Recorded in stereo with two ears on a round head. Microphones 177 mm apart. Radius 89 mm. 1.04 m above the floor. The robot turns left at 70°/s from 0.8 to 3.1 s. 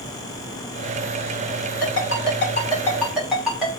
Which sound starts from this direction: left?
A ringtone, at 1.8 s.